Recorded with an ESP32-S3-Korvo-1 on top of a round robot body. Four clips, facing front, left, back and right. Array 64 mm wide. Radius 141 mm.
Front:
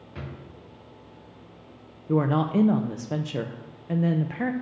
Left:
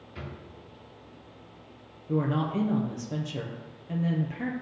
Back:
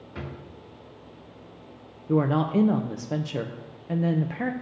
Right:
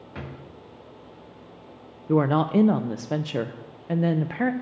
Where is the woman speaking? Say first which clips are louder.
Right 7 dB, even; 80° right, 0.5 m.